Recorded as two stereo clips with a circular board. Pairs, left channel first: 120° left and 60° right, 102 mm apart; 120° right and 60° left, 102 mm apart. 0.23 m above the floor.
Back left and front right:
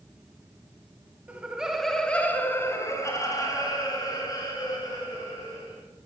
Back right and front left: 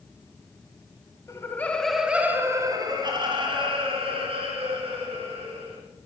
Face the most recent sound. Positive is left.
turn(degrees=70)